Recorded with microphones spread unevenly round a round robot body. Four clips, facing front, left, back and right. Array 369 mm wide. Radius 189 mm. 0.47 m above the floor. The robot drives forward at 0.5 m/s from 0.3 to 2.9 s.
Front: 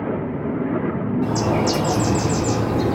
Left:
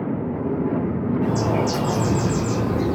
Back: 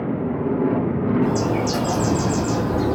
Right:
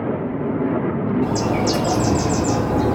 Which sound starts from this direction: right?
A bird, at 1.2 s.